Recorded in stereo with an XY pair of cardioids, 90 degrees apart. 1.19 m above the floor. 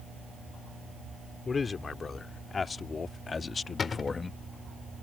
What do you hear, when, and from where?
1.4 s a man speaking: 45° left; by 4.4 s 40° left
3.8 s a cupboard door: 50° left